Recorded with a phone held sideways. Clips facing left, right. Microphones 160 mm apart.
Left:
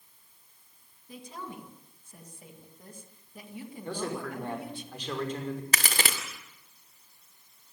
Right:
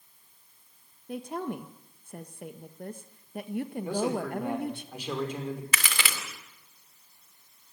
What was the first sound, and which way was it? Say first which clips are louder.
A woman speaking: right 9 dB; 60° right (ahead or behind).